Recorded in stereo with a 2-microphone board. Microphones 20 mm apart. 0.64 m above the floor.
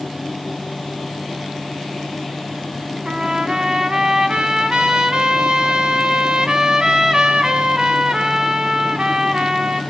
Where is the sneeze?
I don't hear a sneeze.